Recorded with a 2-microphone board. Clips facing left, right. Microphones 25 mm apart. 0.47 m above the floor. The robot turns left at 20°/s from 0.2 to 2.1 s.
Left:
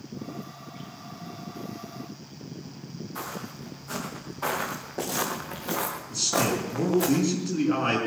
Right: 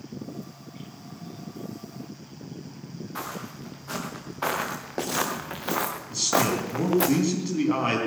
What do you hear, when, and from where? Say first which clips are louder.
3.1 s footsteps: right 1 dB; 50° right (ahead or behind), 6 m; by 7.1 s 80° right, 2 m
6.1 s a man speaking: right 2 dB; 35° right (ahead or behind), 4.5 m